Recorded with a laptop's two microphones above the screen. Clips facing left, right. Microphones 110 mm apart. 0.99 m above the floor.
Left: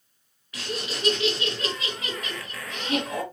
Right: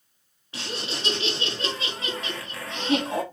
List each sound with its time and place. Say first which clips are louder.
0.5 s laughter: left 1 dB; 30° right (ahead or behind), 1.0 m